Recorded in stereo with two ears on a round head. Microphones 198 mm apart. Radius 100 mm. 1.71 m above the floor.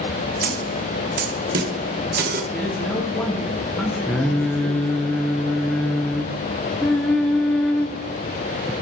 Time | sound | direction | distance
0.4 | a snare drum | 45° right (ahead or behind) | 1.1 m
2.5 | a man speaking | 5° left (ahead or behind) | 3 m
4.1 | singing | 5° left (ahead or behind) | 0.7 m